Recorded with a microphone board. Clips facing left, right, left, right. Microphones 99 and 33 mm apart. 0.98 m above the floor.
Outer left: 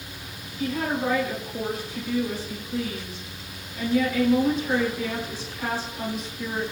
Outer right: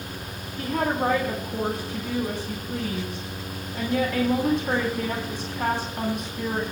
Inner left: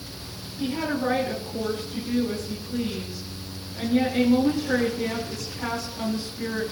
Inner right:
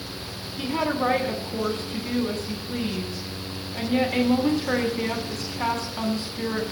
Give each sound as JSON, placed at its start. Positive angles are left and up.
{"t": 0.6, "sound": "a woman speaking", "side_deg": -65, "distance_m": 10.0}